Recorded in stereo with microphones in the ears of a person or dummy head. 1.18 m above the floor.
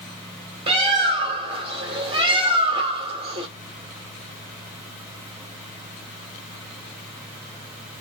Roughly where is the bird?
Right.